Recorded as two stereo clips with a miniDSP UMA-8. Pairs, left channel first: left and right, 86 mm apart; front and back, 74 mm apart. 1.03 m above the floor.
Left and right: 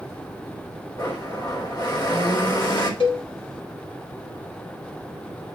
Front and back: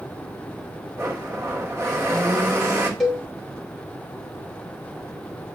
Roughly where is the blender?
Behind left.